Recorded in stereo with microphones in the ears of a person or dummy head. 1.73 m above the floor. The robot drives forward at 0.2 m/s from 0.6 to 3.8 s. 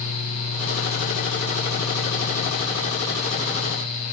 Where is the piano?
No piano in this recording.